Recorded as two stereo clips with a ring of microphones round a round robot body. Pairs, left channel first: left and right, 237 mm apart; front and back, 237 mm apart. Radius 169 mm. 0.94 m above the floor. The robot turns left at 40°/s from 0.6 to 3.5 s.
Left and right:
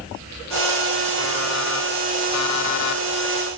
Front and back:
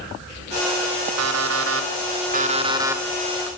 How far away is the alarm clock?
About 2 m.